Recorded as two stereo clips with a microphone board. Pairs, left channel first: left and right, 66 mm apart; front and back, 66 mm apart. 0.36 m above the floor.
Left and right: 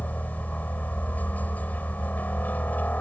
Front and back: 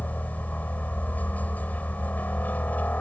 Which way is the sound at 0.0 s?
45° left.